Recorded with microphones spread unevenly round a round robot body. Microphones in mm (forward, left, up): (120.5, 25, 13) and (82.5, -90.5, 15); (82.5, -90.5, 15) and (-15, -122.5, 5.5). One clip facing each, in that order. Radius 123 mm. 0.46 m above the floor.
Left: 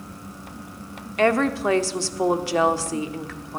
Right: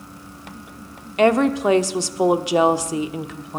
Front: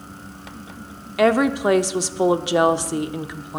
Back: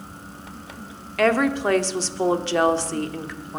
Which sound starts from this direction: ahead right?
A woman speaking, at 1.2 s.